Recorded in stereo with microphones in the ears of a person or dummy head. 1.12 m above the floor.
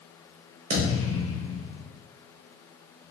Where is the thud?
35° right (ahead or behind), 0.8 m.